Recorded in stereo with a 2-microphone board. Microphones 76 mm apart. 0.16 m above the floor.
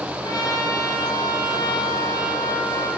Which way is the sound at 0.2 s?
65° left (ahead or behind).